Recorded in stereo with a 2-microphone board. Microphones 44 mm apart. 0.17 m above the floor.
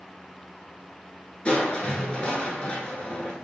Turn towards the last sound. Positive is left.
turn(degrees=20)  # may be behind; listen again after turning